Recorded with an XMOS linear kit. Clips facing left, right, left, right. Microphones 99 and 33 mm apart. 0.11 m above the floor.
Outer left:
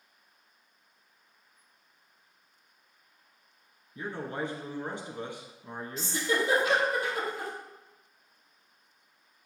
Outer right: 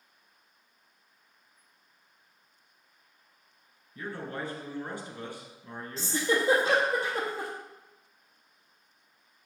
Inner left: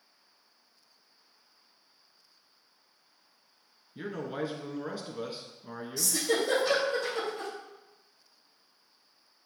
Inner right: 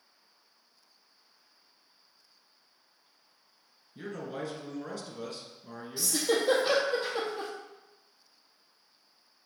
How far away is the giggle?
About 2 m.